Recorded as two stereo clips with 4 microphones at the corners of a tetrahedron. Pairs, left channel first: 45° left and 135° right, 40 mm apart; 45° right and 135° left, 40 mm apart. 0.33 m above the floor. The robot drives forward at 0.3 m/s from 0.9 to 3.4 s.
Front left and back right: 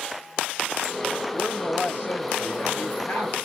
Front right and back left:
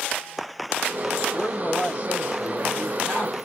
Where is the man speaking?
95° left, 6 m; by 3.4 s 100° left, 6 m.